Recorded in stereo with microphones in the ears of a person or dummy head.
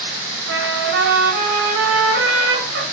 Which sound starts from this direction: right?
A trumpet, at 0.5 s.